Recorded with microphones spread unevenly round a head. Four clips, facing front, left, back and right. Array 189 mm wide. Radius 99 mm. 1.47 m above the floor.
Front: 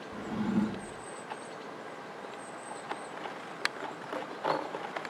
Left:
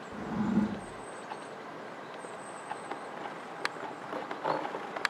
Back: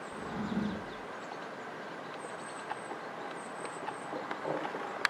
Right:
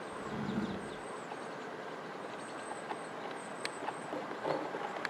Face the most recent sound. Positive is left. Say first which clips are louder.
# left 9 dB, front 5 dB
turn(degrees=65)